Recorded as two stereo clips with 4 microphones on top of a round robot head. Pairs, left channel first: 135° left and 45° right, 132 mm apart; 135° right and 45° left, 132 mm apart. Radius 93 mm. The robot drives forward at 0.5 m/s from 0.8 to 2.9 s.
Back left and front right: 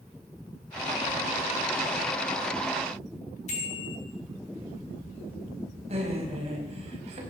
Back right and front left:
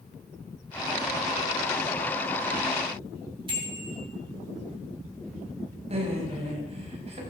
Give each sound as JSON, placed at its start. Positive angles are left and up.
{"t": 3.5, "sound": "a bicycle bell", "azimuth_deg": 100, "distance_m": 4.0}
{"t": 5.9, "sound": "laughter", "azimuth_deg": 0, "distance_m": 4.5}